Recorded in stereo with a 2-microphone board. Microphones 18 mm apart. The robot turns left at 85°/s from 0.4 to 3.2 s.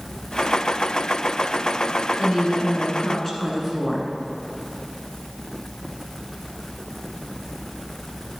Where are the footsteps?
No footsteps in this recording.